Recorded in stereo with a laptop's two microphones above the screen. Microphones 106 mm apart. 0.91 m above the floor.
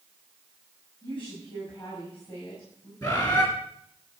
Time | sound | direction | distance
1.0 | a woman speaking | 50° left (ahead or behind) | 6 m
3.0 | a bird | 35° left (ahead or behind) | 3 m